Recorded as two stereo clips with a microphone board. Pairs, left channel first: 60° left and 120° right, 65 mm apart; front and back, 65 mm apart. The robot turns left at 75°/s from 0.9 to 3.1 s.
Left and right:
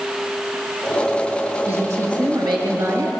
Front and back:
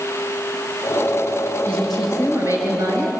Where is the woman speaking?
65° right, 5 m; by 3.2 s 175° right, 5 m.